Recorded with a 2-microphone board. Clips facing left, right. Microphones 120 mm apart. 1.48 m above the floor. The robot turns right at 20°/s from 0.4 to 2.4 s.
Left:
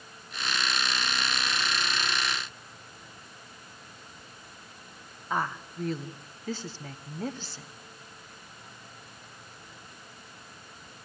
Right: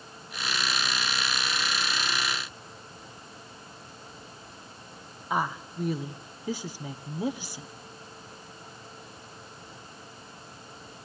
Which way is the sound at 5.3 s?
10° right (ahead or behind).